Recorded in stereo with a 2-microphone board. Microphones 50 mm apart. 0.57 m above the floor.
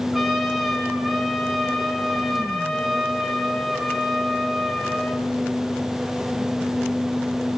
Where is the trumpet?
5° right (ahead or behind), 1.9 m.